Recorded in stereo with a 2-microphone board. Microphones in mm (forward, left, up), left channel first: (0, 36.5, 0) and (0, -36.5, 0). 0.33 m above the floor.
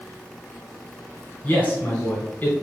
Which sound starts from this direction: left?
A man speaking, at 1.4 s.